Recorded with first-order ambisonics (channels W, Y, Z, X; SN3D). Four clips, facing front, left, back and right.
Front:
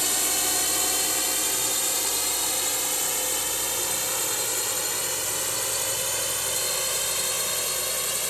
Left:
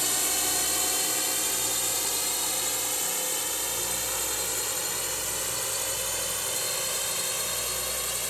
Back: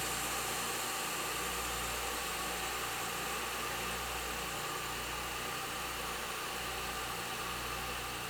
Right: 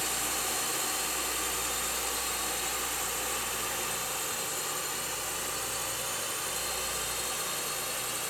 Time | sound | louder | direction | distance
0.0 | a drone | left 4 dB, front 10 dB | 25° left | ?